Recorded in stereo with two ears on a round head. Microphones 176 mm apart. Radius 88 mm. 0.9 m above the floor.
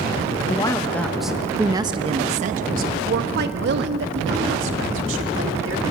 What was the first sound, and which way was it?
A woman speaking, 25° left (ahead or behind).